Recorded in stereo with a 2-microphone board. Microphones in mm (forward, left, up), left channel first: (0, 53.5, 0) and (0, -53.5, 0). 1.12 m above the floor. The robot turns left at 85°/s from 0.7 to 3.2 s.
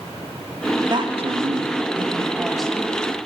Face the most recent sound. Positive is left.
turn(degrees=50)  # may be behind; listen again after turning